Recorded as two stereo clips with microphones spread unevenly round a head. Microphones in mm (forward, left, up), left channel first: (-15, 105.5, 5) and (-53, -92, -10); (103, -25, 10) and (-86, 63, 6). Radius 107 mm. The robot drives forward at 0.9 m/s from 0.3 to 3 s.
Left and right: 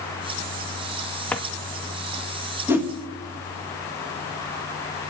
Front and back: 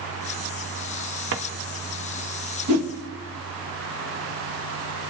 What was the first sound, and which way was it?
A drawer, 155° left.